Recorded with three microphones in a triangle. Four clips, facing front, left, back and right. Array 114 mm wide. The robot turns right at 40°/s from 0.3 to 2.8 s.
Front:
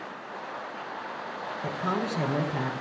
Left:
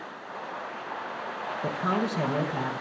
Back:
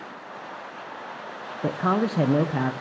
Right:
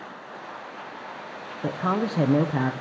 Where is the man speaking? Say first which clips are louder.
Right 3 dB, back 7 dB; 170° right, 0.7 m; by 2.7 s 125° right, 0.7 m.